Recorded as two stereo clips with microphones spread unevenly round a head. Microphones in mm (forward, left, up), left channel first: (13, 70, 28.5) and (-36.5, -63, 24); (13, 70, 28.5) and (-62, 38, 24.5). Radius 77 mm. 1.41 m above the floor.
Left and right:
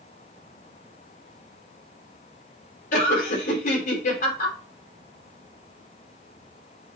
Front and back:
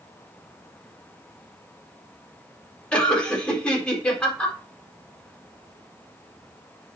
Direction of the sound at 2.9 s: 100° left.